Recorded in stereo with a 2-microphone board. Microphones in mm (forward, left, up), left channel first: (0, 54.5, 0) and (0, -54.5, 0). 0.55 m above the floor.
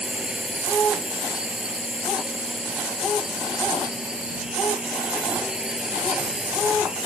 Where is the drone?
10° right (ahead or behind).